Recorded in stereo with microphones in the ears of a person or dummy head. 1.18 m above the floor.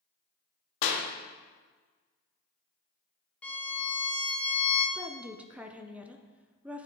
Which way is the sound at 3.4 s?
5° left (ahead or behind).